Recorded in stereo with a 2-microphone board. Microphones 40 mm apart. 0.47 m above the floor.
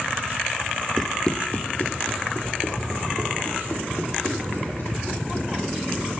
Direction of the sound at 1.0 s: 10° left (ahead or behind).